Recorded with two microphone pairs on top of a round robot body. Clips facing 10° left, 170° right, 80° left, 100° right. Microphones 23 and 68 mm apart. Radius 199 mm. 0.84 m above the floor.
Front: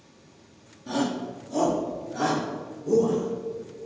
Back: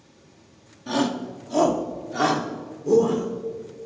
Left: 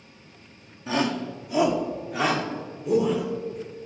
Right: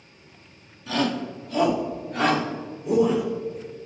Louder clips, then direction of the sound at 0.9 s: Back 3 dB, even; 140° left.